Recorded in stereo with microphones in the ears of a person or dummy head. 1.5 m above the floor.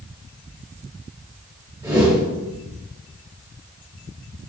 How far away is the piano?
No piano in this recording.